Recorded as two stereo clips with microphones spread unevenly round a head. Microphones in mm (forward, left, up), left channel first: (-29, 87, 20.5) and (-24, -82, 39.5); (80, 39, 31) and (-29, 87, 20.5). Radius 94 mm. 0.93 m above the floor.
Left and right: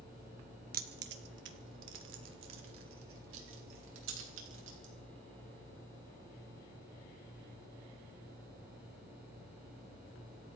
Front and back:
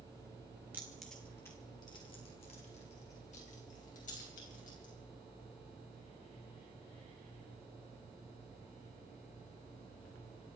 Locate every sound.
0.7 s keys jangling: 125° right, 1.5 m; by 4.9 s 65° right, 5 m